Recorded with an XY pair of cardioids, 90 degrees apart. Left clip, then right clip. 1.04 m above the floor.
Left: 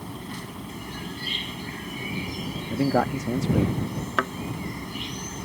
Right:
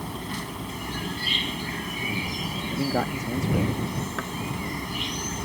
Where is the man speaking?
30° left.